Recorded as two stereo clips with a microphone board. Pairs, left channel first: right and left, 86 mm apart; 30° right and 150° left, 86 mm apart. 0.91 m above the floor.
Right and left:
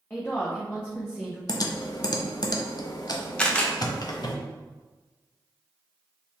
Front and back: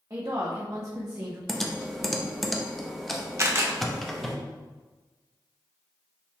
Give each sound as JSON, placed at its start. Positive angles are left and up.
{"t": 0.1, "sound": "a woman speaking", "azimuth_deg": -160, "distance_m": 0.8}
{"t": 1.5, "sound": "typing on a keyboard", "azimuth_deg": -120, "distance_m": 0.5}
{"t": 3.4, "sound": "a camera shutter", "azimuth_deg": -165, "distance_m": 0.7}